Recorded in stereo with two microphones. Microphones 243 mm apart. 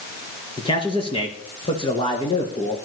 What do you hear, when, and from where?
0.6 s a man speaking: 20° left (ahead or behind), 3 m